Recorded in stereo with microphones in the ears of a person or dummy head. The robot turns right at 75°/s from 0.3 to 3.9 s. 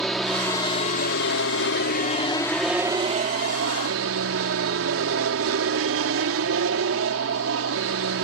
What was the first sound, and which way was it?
An aircraft, straight ahead.